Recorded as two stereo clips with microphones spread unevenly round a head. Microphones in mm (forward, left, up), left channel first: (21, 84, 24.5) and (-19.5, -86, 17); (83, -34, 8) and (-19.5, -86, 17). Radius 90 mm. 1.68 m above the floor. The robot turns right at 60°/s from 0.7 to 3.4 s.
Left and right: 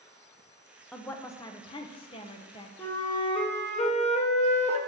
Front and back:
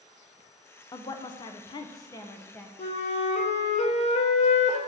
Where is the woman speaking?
Straight ahead, 0.5 m; by 2.7 s 110° left, 0.5 m.